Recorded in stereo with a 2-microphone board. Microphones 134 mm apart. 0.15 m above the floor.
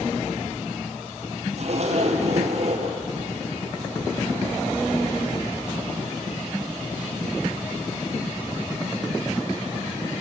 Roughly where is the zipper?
Right.